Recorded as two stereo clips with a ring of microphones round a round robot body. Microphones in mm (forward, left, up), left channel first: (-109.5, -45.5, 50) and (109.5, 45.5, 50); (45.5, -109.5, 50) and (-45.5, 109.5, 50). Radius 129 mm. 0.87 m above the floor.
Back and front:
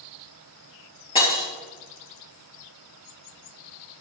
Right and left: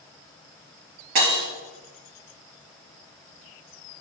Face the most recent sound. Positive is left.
turn(degrees=130)